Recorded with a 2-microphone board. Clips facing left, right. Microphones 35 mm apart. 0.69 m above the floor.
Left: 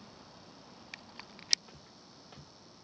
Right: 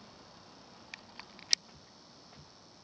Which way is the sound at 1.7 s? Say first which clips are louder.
Left 2 dB; 60° left (ahead or behind).